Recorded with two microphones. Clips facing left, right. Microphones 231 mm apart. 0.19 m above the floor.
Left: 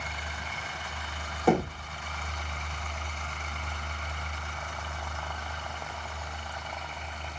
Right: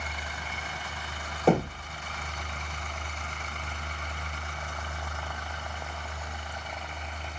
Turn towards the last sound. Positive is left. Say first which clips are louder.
# right 1 dB
turn(degrees=-30)  # may be behind; listen again after turning